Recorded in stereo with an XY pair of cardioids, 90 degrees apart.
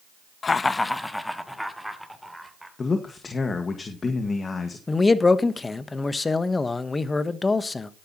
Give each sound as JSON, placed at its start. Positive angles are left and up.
{"t": 0.4, "sound": "laughter", "azimuth_deg": 45, "distance_m": 0.8}
{"t": 2.8, "sound": "a man speaking", "azimuth_deg": 40, "distance_m": 1.8}
{"t": 4.9, "sound": "a man speaking", "azimuth_deg": 30, "distance_m": 1.2}